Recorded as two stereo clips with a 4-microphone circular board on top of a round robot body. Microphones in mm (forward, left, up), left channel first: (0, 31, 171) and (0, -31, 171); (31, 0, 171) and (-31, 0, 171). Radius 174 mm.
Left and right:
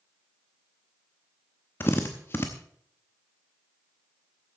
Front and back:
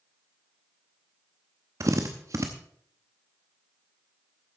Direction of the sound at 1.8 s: 145° left.